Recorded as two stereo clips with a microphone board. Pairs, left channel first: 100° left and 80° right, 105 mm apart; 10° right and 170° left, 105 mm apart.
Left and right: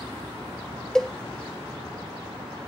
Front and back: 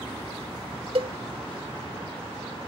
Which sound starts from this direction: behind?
A cowbell, at 0.9 s.